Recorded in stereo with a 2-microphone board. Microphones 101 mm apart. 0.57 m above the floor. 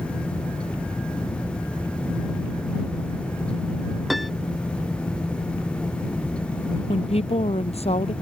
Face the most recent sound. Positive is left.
turn(degrees=80)